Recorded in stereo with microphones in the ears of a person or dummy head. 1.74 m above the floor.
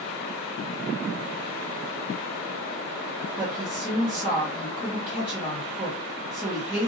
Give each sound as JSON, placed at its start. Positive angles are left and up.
{"t": 3.4, "sound": "a woman speaking", "side_deg": -15, "distance_m": 1.0}